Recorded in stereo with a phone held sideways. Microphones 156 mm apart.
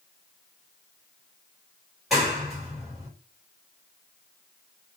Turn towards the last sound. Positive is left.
turn(degrees=0)  # may be behind; listen again after turning